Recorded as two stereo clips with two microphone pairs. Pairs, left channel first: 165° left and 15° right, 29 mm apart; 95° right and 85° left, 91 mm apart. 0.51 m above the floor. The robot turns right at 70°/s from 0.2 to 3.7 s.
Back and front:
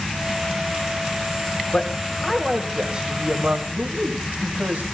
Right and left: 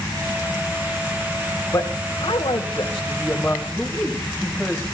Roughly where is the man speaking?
Behind right.